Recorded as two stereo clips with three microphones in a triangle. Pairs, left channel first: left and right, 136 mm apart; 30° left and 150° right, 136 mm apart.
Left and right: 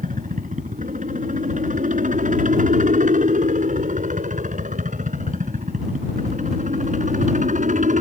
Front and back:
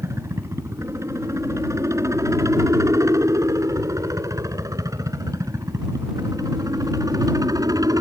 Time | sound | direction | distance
0.0 | a helicopter | 80° right | ?